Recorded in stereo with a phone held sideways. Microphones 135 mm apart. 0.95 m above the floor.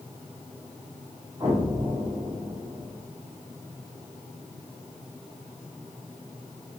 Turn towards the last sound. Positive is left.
turn(degrees=-35)  # may be behind; listen again after turning